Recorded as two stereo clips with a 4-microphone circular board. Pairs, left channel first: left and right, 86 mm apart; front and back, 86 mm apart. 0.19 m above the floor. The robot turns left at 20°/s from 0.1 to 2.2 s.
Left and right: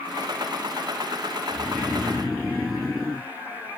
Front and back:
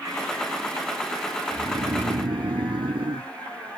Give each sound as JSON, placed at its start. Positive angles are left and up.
{"t": 1.5, "sound": "snoring", "azimuth_deg": -165}